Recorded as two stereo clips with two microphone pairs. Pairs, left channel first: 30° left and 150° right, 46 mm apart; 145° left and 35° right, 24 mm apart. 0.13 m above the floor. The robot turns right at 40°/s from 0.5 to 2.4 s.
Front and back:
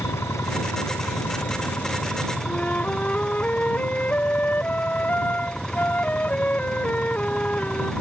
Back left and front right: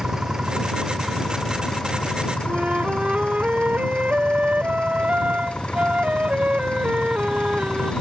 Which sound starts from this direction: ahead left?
An engine running, at 0.0 s.